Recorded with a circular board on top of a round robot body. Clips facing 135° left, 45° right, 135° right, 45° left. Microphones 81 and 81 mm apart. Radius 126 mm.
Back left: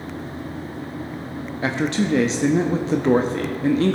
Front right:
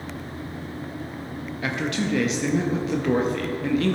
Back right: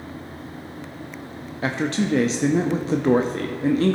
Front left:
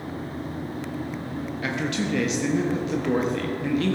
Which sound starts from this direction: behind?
A man speaking, at 1.6 s.